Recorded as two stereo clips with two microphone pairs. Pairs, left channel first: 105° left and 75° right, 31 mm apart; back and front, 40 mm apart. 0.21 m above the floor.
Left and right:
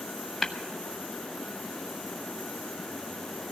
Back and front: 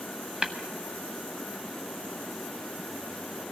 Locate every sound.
0.4 s tapping: 25° left, 1.0 m